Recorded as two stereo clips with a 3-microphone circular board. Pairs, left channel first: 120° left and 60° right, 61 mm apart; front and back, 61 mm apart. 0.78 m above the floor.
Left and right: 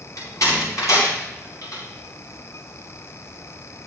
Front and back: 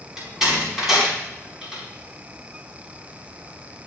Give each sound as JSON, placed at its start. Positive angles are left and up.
{"t": 0.2, "sound": "a door slam", "azimuth_deg": 95, "distance_m": 5.0}